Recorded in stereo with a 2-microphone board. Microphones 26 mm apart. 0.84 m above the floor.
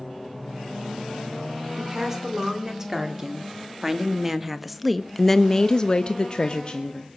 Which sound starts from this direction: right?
A woman speaking, at 1.8 s.